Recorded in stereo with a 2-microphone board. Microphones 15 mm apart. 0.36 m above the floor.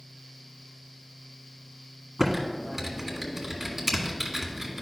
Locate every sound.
2.2 s typing on a keyboard: 15° right (ahead or behind), 1.5 m